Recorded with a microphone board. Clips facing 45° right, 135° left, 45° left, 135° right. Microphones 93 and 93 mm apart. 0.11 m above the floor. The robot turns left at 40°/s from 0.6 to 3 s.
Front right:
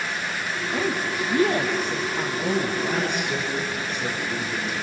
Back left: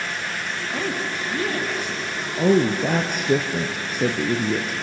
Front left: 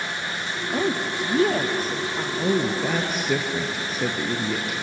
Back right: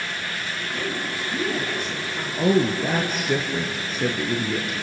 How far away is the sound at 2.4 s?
About 1.7 m.